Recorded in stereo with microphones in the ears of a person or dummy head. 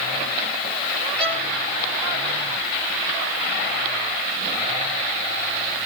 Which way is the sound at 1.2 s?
5° left (ahead or behind).